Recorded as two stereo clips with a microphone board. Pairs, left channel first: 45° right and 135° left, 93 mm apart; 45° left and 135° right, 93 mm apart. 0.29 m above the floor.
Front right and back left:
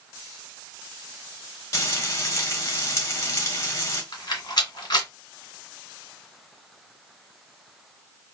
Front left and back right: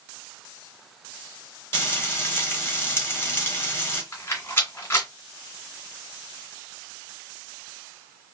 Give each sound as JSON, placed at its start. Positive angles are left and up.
{"t": 1.7, "sound": "frying", "azimuth_deg": -10, "distance_m": 1.0}
{"t": 4.1, "sound": "a rattle", "azimuth_deg": -15, "distance_m": 1.7}